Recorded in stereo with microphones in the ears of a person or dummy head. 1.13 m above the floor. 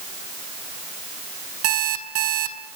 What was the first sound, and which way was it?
An alarm clock, 80° right.